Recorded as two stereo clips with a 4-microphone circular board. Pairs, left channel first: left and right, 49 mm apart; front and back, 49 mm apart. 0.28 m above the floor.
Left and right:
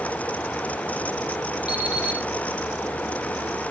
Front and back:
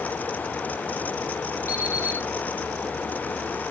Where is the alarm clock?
30° right, 6 m.